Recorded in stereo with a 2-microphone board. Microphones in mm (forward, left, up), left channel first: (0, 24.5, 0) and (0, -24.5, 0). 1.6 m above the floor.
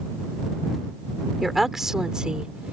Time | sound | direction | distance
1.4 | a woman speaking | centre (ahead or behind) | ?